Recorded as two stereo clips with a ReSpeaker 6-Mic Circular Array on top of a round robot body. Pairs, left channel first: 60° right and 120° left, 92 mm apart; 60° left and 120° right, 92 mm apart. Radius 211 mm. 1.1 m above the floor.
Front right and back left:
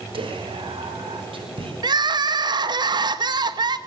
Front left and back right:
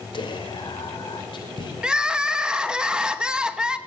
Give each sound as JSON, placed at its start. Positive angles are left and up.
{"t": 0.1, "sound": "whispering", "azimuth_deg": 95, "distance_m": 5.5}
{"t": 1.8, "sound": "crying", "azimuth_deg": 160, "distance_m": 2.5}